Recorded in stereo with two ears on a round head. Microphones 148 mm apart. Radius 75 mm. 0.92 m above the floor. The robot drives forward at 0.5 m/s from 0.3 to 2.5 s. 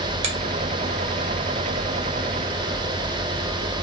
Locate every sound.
0.2 s a finger snap: 40° right (ahead or behind), 0.6 m